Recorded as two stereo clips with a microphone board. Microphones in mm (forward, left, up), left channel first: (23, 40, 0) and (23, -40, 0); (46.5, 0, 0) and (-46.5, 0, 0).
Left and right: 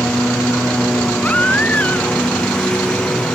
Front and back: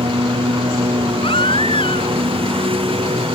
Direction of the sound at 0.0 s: 170° left.